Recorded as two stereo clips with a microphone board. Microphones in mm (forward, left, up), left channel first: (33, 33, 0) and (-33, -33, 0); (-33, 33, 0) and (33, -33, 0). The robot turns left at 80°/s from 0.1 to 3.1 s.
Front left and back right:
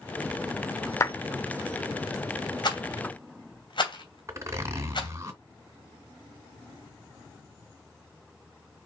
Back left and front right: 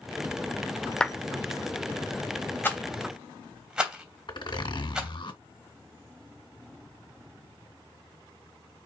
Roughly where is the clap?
Ahead left.